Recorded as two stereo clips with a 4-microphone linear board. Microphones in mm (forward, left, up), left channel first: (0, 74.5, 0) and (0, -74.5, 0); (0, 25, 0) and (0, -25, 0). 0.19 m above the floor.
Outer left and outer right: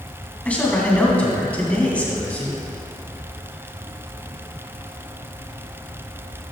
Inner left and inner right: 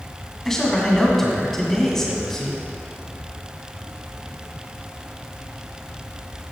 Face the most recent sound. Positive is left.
turn(degrees=10)  # may be behind; listen again after turning